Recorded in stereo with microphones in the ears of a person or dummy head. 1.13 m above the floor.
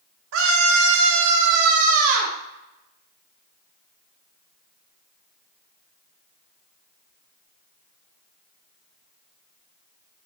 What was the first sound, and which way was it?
A scream, 65° right (ahead or behind).